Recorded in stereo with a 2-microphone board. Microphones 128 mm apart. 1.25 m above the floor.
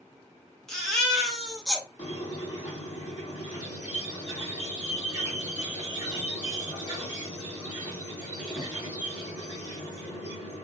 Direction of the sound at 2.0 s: 80° left.